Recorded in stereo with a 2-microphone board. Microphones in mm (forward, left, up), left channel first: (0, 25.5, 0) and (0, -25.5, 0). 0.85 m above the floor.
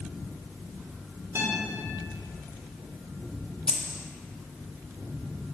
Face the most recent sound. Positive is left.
turn(degrees=15)  # may be behind; listen again after turning